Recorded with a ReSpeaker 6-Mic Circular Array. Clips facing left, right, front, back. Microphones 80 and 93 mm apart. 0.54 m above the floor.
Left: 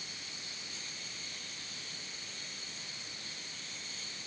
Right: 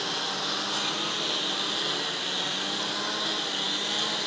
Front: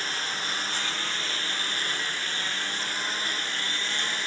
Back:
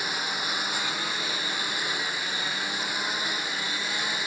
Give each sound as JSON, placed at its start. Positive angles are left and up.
{"t": 0.0, "sound": "a lawn mower", "azimuth_deg": -100}